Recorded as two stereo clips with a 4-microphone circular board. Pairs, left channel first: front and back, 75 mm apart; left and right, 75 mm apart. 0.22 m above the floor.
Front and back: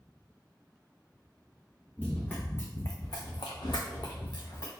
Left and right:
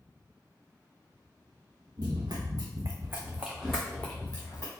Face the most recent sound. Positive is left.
turn(degrees=35)